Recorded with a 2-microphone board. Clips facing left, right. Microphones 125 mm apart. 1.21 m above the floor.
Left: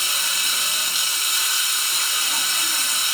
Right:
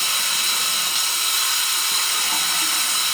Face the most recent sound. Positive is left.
turn(degrees=-70)  # may be behind; listen again after turning